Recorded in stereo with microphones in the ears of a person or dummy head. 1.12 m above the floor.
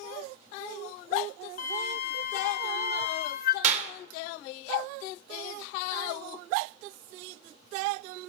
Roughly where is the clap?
Right.